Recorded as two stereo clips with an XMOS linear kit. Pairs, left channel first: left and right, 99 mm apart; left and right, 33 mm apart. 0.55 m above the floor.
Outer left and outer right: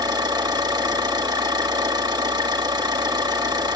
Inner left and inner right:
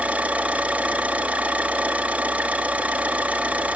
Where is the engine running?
45° right (ahead or behind), 2 m.